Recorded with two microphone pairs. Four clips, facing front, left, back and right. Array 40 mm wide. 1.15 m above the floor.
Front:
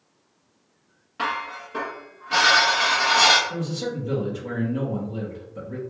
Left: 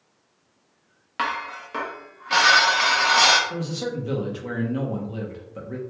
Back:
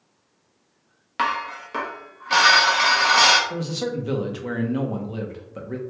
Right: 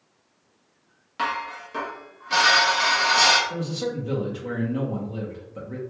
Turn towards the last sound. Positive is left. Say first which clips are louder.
# even, back 2 dB
turn(degrees=155)